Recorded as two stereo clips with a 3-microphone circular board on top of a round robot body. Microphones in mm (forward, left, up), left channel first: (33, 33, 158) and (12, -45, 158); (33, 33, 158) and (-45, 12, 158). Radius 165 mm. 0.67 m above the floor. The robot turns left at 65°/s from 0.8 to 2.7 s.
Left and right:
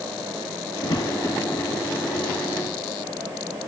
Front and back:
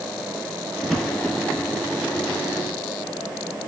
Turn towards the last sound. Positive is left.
turn(degrees=-15)